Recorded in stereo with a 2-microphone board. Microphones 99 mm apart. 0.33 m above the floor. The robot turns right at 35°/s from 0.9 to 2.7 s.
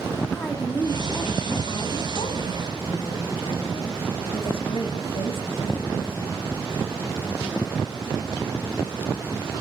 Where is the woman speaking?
20° left, 2 m; by 6.4 s 85° left, 2 m.